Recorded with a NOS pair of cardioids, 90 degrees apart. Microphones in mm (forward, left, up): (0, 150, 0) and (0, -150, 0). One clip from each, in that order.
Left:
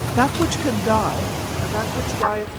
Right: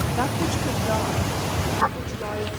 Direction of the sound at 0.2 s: 35° left.